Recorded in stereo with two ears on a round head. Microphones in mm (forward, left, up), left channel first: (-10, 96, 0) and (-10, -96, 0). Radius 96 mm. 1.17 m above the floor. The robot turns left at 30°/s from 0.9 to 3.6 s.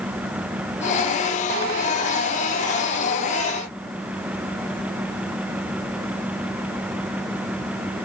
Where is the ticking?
No ticking in this recording.